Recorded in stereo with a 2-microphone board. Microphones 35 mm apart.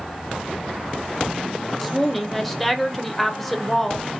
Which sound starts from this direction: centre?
A woman speaking, at 1.8 s.